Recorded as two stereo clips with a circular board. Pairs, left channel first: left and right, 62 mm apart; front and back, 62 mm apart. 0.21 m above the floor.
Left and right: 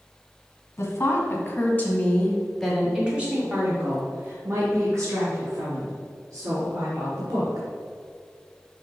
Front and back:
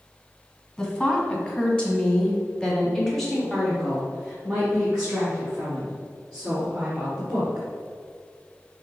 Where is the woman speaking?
65° left, 1.9 m; by 7.7 s 105° right, 4 m.